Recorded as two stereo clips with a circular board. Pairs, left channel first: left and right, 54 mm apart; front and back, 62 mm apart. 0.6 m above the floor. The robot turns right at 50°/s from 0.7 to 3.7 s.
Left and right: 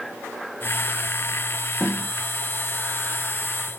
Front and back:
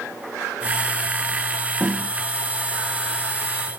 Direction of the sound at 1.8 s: 165° right.